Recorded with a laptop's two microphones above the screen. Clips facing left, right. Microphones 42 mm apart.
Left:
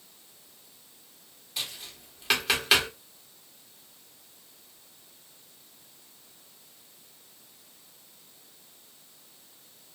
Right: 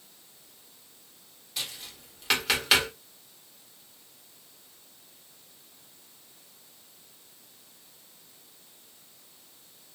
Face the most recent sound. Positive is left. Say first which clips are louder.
# even
turn(degrees=0)  # may be behind; listen again after turning